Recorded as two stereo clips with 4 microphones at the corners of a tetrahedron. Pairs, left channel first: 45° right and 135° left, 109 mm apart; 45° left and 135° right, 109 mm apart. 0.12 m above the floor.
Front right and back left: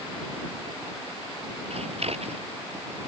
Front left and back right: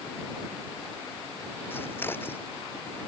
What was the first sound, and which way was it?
Scissors, 115° left.